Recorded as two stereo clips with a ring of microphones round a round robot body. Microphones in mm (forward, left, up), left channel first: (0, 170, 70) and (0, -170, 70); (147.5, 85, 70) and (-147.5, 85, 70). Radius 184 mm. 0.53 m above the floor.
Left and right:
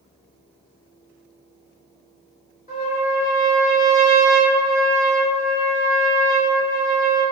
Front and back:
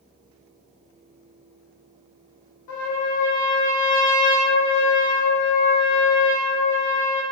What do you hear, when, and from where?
2.7 s a trumpet: 20° left, 0.8 m